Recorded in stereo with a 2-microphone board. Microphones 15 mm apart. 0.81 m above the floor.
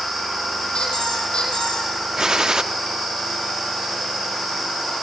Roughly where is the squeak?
Left.